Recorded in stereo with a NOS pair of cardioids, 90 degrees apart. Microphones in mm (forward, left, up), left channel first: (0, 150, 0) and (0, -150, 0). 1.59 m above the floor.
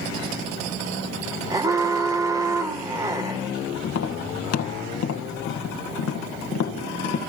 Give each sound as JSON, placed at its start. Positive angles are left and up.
{"t": 1.5, "sound": "an alarm", "azimuth_deg": -10, "distance_m": 1.4}
{"t": 3.8, "sound": "tapping", "azimuth_deg": 55, "distance_m": 1.8}